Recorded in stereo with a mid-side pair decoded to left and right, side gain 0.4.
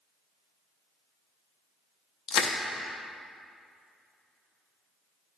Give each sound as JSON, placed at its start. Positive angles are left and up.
{"t": 2.3, "sound": "crushing", "azimuth_deg": 70, "distance_m": 0.8}